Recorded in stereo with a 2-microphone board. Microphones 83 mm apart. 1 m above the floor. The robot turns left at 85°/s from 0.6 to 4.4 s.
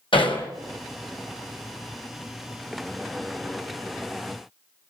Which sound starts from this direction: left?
Hammering, at 0.1 s.